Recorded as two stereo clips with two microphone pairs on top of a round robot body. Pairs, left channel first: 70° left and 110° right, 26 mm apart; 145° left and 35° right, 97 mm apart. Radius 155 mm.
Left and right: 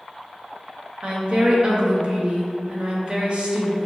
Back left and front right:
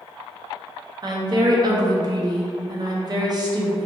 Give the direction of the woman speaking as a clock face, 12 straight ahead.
2 o'clock.